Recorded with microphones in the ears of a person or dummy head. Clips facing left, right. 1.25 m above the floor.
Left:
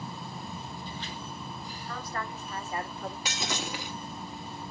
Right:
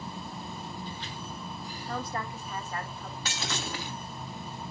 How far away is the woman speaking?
About 1.3 m.